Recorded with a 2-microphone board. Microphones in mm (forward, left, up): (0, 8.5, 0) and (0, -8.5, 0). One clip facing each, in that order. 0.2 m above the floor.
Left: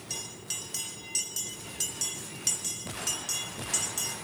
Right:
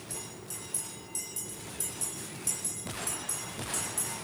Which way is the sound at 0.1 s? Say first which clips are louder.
Left 8 dB; 55° left (ahead or behind).